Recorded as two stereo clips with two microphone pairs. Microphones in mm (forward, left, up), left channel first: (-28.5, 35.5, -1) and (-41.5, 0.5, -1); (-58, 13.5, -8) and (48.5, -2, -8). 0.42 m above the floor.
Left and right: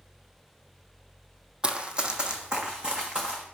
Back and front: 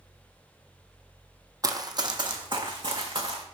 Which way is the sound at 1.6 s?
55° right.